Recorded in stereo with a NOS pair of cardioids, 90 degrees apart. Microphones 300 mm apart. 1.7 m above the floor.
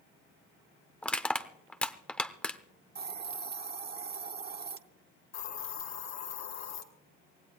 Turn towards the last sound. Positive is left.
turn(degrees=65)